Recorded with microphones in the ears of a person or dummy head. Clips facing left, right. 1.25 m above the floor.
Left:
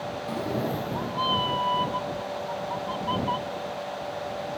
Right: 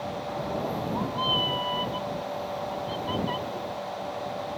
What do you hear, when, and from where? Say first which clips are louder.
0.3 s a cat meowing: left 3 dB; 45° left (ahead or behind); by 4.5 s 25° right (ahead or behind)